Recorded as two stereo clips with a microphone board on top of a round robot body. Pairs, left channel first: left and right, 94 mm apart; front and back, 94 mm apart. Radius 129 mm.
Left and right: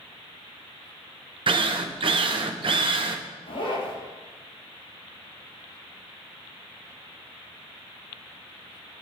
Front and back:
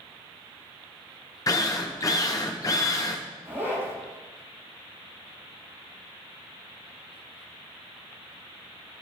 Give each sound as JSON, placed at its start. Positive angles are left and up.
{"t": 1.5, "sound": "a drill", "azimuth_deg": -60, "distance_m": 0.7}
{"t": 3.5, "sound": "a zipper", "azimuth_deg": 115, "distance_m": 6.5}